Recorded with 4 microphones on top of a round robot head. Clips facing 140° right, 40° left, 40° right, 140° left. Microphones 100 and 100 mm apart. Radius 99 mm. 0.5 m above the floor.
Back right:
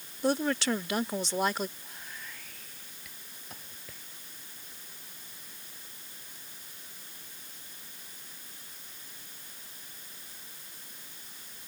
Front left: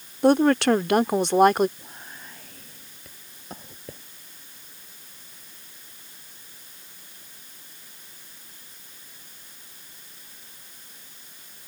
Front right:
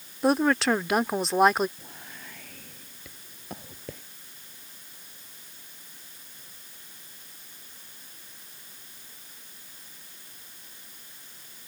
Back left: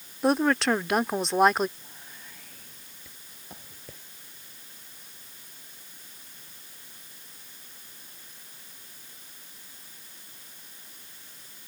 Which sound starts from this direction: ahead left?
A woman speaking, at 0.2 s.